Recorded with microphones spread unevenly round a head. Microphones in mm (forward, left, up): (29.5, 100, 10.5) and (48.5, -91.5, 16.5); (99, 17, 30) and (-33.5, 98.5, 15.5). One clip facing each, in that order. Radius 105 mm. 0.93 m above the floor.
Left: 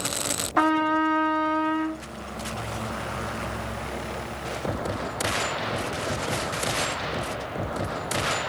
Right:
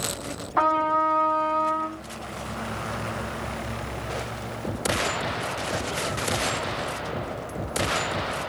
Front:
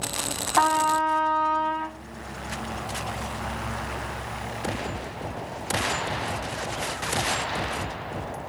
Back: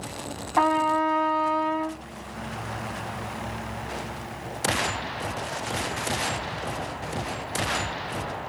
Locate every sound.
0.6 s a trumpet: 65° left, 1.0 m